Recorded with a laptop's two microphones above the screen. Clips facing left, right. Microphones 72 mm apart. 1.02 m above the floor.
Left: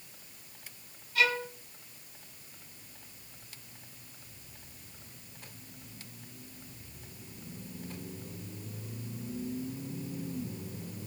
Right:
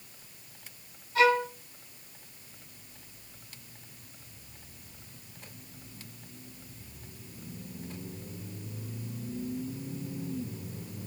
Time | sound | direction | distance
1.1 | a violin | 30° right (ahead or behind) | 1.4 m